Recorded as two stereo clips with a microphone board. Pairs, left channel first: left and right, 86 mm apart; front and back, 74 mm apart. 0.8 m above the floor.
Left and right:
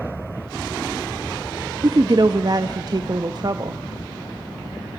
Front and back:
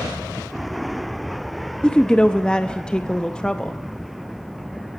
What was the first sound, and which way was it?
A woman speaking, 75° right.